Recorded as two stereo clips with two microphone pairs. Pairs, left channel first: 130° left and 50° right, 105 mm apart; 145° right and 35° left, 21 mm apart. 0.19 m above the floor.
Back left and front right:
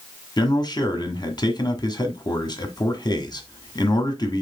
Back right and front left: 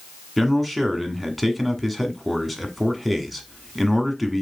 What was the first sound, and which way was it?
A man speaking, 130° left.